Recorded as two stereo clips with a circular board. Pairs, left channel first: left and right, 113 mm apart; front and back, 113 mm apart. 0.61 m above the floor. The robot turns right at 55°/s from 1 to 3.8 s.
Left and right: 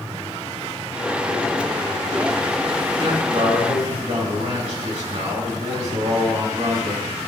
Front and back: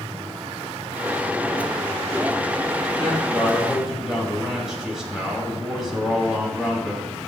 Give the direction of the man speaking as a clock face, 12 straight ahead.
5 o'clock.